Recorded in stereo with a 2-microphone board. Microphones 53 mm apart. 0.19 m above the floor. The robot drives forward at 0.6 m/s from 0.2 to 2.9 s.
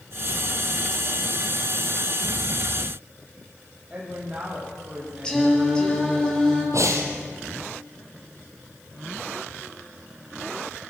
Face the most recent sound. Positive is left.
turn(degrees=-70)  # may be behind; listen again after turning